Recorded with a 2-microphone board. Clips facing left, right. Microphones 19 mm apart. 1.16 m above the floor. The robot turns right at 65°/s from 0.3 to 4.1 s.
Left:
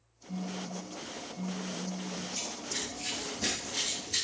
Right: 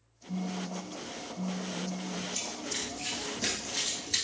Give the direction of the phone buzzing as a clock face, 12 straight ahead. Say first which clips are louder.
Right 2 dB; 3 o'clock.